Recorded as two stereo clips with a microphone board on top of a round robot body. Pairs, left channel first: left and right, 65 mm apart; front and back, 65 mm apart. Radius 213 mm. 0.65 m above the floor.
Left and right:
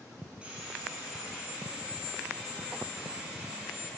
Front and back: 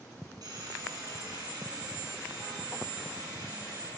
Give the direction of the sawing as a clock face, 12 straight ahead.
5 o'clock.